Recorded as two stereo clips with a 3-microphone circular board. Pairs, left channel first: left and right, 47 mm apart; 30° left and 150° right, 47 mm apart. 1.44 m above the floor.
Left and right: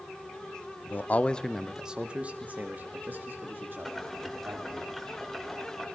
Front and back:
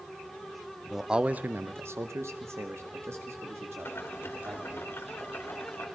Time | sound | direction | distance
0.8 | a man speaking | 120° left | 0.8 m
3.9 | boiling | 5° left | 2 m